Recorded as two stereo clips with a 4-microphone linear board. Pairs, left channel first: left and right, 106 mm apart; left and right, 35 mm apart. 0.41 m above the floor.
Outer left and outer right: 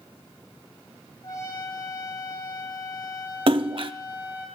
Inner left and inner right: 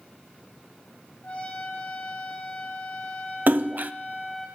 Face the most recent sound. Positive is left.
turn(degrees=-55)  # may be behind; listen again after turning